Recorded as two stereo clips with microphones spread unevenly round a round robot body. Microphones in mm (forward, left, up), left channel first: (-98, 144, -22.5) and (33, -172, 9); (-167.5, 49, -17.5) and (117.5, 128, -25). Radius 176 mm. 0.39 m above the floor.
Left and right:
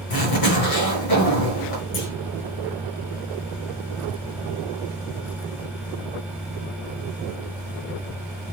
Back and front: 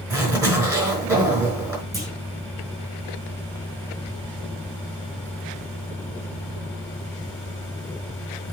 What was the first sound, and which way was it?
A zipper, 95° left.